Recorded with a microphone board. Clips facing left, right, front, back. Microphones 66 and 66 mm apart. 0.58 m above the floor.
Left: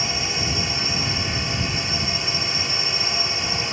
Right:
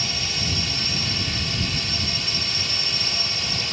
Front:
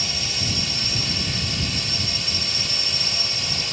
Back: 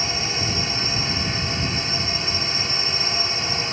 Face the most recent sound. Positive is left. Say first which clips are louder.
# left 3 dB, back 4 dB
turn(degrees=140)